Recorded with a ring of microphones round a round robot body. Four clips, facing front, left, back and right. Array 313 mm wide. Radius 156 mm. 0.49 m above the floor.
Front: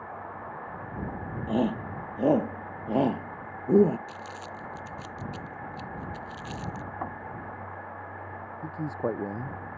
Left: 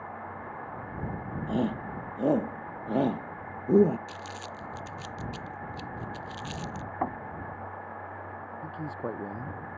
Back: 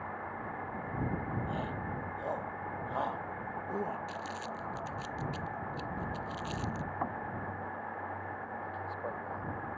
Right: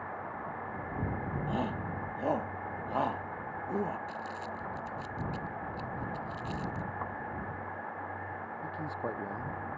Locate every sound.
1.5 s a shout: 30° left; by 4.0 s 45° left
4.1 s crumpling: 90° left
7.0 s knocking: 85° left
8.6 s a man speaking: 15° left